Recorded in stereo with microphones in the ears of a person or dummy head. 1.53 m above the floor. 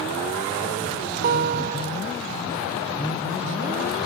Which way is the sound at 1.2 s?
55° right (ahead or behind).